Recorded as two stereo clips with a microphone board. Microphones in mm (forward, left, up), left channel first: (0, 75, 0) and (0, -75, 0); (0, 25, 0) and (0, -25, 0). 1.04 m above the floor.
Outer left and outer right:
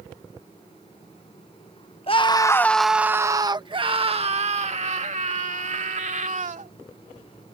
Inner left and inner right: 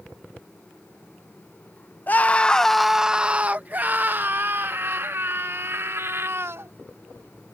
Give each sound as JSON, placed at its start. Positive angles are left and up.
{"t": 2.1, "sound": "a scream", "side_deg": 40}